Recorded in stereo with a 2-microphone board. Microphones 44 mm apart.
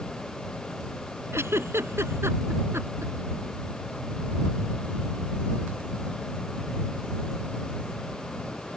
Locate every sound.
1.3 s a giggle: 80° right